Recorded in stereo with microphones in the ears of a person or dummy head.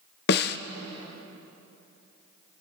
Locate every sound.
0.3 s a snare drum: 55° left (ahead or behind), 0.8 m